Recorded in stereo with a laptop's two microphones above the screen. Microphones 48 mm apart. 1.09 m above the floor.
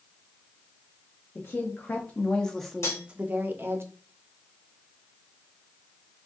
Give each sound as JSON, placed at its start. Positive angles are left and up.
{"t": 1.4, "sound": "a woman speaking", "side_deg": 45, "distance_m": 0.9}
{"t": 2.8, "sound": "cutlery clinking", "side_deg": 65, "distance_m": 2.0}